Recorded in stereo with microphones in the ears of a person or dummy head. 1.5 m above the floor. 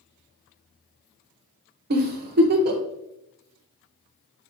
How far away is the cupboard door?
No cupboard door in this recording.